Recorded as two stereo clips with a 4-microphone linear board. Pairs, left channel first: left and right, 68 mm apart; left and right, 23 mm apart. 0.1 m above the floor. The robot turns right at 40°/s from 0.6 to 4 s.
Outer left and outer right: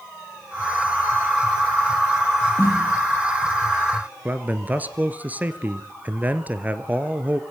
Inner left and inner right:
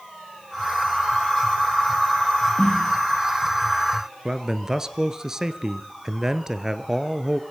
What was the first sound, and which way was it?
A snare drum, 60° left (ahead or behind).